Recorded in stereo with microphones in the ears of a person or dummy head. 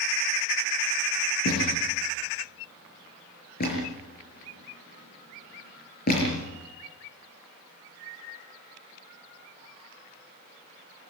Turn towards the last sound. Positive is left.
turn(degrees=45)  # may be behind; listen again after turning